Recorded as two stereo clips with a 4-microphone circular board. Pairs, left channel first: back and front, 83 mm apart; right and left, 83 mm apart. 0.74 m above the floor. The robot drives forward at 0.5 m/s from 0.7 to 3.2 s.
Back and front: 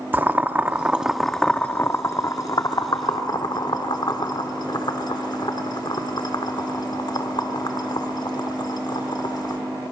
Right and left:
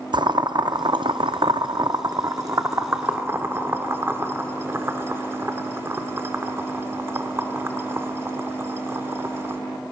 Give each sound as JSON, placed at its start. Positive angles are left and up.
{"t": 0.1, "sound": "boiling", "azimuth_deg": 65, "distance_m": 0.7}